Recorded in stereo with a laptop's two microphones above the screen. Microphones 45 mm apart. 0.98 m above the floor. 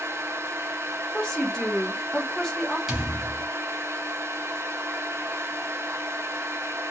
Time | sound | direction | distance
0.0 | a fan | 75° right (ahead or behind) | 0.8 m
1.1 | a woman speaking | 15° left (ahead or behind) | 1.0 m
2.9 | a thud | 10° right (ahead or behind) | 1.1 m